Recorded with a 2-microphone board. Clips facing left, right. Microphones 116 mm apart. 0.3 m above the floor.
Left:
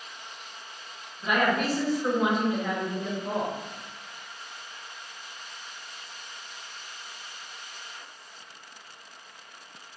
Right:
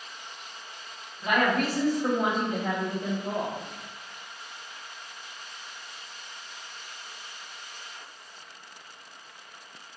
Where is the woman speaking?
60° right (ahead or behind), 1.8 m; by 3.6 s 10° left (ahead or behind), 1.0 m.